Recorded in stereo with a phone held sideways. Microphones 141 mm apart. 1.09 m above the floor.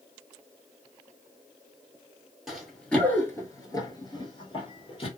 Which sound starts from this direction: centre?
Running footsteps, at 2.5 s.